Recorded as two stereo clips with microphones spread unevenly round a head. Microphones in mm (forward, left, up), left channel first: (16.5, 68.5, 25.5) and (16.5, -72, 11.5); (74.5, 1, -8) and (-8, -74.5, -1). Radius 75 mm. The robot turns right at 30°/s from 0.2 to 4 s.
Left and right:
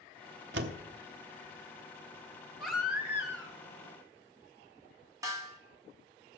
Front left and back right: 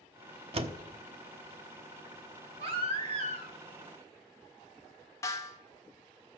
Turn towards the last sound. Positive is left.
turn(degrees=-20)